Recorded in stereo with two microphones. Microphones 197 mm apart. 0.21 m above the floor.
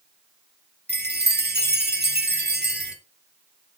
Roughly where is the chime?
Right.